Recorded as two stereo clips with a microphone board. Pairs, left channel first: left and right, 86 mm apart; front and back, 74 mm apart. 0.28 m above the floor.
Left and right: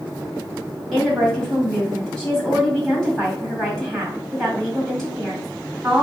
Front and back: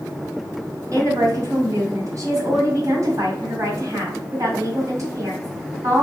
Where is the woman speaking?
175° left, 2 m.